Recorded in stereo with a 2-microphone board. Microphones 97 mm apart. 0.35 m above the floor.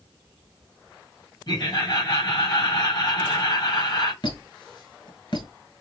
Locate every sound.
1.5 s laughter: 50° left (ahead or behind), 2 m
4.2 s a squeak: 50° left (ahead or behind), 1.5 m